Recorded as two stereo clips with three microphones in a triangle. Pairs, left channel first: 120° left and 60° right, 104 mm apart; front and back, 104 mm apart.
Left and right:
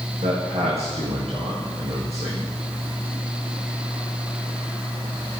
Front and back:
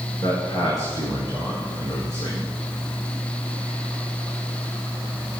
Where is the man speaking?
50° right, 7.5 m.